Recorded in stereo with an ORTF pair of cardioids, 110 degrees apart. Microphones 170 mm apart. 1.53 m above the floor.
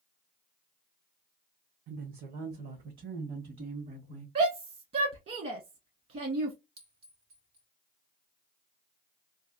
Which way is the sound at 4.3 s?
50° right.